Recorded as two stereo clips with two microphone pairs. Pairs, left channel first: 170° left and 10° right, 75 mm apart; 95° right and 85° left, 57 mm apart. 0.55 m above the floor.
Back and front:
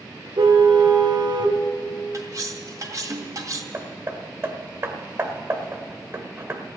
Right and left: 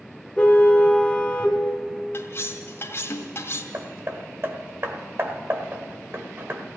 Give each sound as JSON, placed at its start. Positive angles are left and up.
{"t": 0.4, "sound": "a car horn", "azimuth_deg": -20, "distance_m": 2.0}
{"t": 2.1, "sound": "cutlery clinking", "azimuth_deg": -55, "distance_m": 2.0}
{"t": 3.7, "sound": "hammering", "azimuth_deg": 45, "distance_m": 1.5}